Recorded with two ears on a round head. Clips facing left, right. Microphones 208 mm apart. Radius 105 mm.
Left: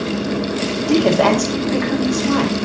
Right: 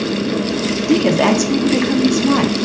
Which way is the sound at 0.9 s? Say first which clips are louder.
Even; 30° right (ahead or behind).